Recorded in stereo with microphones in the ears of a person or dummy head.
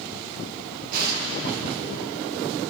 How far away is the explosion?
About 1.8 m.